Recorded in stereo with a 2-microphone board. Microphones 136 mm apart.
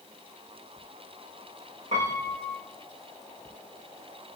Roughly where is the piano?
Right.